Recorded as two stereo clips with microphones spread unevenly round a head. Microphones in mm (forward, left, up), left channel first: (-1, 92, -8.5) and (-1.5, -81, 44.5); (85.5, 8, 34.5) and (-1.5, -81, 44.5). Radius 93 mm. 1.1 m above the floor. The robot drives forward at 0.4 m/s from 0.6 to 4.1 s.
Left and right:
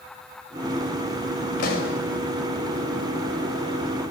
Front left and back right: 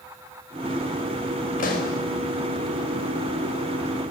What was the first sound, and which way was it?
A pop, 50° left.